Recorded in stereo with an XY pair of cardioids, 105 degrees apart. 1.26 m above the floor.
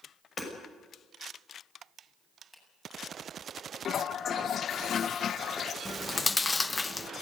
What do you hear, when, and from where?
0.4 s hammering: 40° left, 6.5 m
2.5 s a finger snap: 15° left, 7.5 m
3.9 s a toilet flushing: 55° left, 0.6 m
5.8 s chewing: 20° left, 0.8 m